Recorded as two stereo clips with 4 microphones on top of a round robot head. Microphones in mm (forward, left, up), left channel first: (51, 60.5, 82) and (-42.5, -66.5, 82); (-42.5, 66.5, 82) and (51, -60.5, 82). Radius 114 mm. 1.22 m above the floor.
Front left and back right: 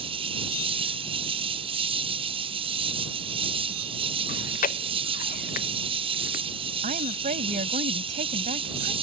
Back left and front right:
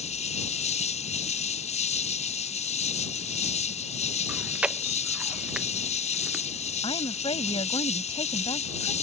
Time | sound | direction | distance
0.0 | an insect | 175° left | ?
4.3 | chewing | 30° left | ?
6.8 | a woman speaking | 170° right | ?